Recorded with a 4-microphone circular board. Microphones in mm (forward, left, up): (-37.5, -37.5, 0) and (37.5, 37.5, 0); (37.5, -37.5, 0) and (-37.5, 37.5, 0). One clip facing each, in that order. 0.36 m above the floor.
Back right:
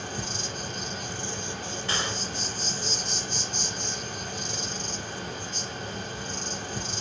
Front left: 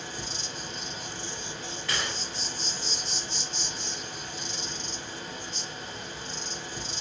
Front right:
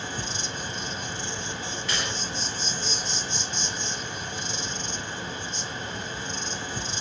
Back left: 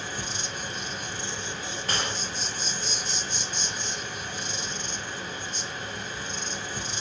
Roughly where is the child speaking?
I don't hear a child speaking.